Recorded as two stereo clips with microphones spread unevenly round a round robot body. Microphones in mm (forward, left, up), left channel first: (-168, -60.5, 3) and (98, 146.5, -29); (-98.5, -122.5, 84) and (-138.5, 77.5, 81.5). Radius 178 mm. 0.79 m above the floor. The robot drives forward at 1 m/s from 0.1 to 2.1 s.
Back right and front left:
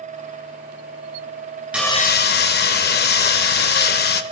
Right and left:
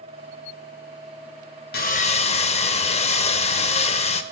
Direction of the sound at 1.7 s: 55° right.